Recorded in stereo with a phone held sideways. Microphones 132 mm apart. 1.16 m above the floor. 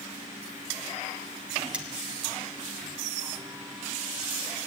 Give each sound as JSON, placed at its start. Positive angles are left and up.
{"t": 1.7, "sound": "cutlery clinking", "side_deg": -10, "distance_m": 1.8}